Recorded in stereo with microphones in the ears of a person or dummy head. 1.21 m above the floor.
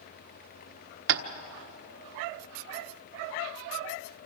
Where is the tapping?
65° right (ahead or behind), 1.2 m.